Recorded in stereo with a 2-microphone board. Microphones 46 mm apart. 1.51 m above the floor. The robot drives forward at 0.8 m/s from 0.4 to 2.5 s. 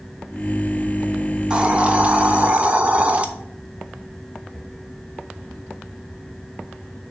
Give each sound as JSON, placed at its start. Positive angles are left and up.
{"t": 1.5, "sound": "a hiss", "side_deg": -25, "distance_m": 1.0}